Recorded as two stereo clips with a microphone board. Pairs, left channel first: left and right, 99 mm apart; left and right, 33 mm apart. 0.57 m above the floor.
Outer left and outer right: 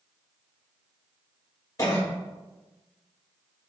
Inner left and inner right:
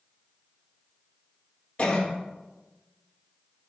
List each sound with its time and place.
1.8 s a cough: 30° left (ahead or behind), 1.2 m